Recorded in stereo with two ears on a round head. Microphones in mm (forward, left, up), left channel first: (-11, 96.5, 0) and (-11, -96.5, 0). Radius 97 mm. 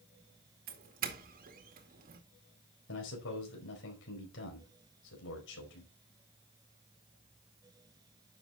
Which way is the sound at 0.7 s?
45° right (ahead or behind).